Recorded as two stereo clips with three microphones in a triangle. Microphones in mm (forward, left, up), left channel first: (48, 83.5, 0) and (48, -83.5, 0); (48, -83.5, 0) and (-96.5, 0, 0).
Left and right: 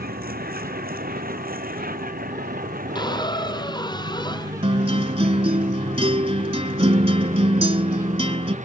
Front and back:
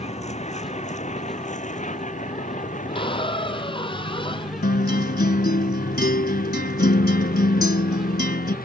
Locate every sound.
0.0 s a vehicle: 75° right; by 8.7 s 50° right
3.0 s a squeak: 25° left
4.6 s a guitar: 35° right